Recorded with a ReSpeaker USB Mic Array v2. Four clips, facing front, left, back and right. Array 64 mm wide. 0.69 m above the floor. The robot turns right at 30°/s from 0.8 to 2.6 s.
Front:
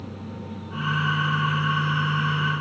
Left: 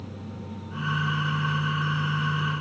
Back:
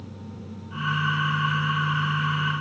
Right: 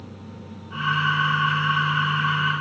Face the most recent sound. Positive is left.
No sound to turn to.